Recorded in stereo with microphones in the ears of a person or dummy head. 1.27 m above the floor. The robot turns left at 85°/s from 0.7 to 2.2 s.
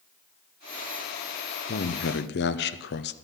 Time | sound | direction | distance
1.7 | a man speaking | 120° left | 0.7 m